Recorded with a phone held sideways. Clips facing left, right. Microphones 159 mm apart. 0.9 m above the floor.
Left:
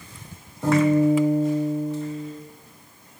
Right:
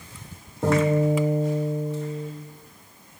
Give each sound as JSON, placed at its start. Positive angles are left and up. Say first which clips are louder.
{"t": 0.6, "sound": "a guitar", "louder": "left 3 dB", "side_deg": -60, "distance_m": 1.0}